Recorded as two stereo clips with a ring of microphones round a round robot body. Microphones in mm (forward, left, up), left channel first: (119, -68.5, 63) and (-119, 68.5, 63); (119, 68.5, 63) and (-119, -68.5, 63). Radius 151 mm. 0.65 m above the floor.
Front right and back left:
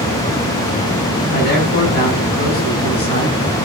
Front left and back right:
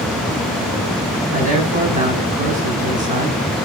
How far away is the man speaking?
About 5 m.